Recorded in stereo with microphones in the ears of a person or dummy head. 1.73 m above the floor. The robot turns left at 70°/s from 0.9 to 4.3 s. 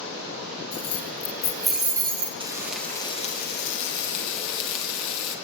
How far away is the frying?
About 1.6 m.